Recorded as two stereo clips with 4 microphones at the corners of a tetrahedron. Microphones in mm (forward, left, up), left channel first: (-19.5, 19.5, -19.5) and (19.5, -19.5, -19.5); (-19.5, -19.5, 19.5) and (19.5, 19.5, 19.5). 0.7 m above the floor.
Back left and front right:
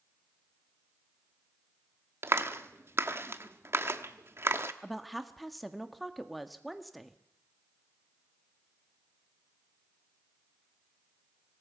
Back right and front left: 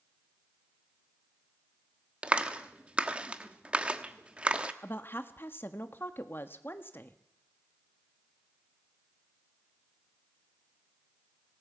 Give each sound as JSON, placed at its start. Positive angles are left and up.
{"t": 2.2, "sound": "a clap", "azimuth_deg": -20, "distance_m": 1.1}
{"t": 4.8, "sound": "a woman speaking", "azimuth_deg": -135, "distance_m": 1.4}